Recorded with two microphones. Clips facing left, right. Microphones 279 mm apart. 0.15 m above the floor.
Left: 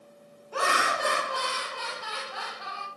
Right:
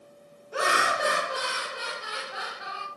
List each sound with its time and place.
0.5 s laughter: 20° right (ahead or behind), 1.2 m